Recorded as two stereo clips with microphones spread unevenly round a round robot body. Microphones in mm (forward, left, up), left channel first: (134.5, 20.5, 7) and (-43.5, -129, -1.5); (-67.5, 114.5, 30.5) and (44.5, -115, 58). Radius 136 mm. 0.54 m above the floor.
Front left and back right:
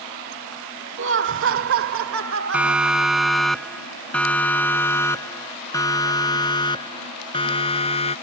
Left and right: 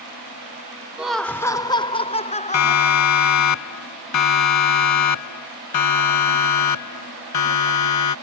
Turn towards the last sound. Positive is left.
turn(degrees=110)